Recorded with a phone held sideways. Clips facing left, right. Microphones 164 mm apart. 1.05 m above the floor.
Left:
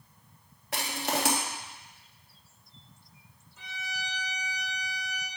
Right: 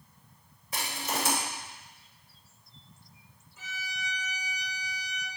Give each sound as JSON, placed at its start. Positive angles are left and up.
{"t": 0.7, "sound": "crushing", "side_deg": 75, "distance_m": 1.5}
{"t": 3.6, "sound": "a violin", "side_deg": -5, "distance_m": 3.5}